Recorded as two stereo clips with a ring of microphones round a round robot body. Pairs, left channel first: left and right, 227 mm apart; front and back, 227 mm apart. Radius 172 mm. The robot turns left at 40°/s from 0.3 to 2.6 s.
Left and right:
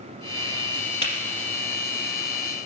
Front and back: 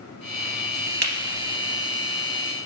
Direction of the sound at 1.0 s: 155° right.